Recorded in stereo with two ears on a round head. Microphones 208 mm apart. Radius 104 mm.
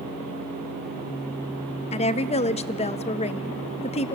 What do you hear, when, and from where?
1.9 s a woman speaking: 25° left (ahead or behind), 0.8 m